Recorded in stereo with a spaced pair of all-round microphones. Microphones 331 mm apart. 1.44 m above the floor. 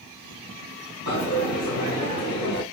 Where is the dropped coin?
70° right (ahead or behind), 3 m.